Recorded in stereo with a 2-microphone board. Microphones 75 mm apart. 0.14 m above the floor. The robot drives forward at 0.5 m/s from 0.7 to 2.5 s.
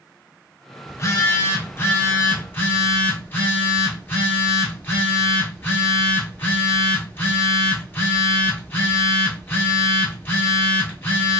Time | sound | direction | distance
0.9 | a phone buzzing | 40° left (ahead or behind) | 0.9 m